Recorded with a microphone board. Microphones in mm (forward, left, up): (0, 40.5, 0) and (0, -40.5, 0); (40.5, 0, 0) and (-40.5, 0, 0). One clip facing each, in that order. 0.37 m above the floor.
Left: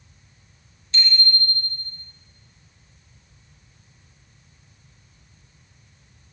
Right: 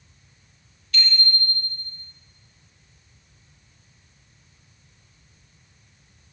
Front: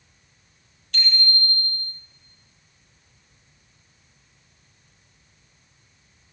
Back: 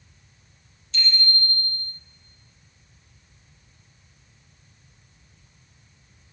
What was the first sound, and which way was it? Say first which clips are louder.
A bicycle bell: left 1 dB, front 1 dB; 25° left.